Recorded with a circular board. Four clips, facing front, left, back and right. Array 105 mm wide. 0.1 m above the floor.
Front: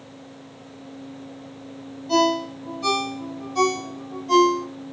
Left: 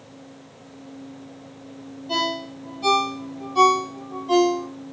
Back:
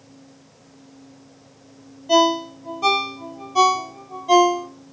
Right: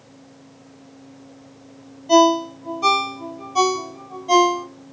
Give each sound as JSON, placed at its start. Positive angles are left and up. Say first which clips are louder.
{"t": 2.1, "sound": "a ringtone", "louder": "right 12 dB, back 3 dB", "azimuth_deg": -145, "distance_m": 0.9}